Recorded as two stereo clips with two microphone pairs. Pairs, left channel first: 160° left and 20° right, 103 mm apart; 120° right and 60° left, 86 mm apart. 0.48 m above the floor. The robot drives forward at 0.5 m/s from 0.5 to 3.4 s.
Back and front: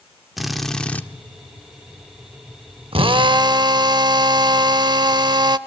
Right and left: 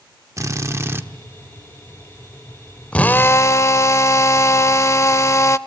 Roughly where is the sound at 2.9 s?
Ahead right.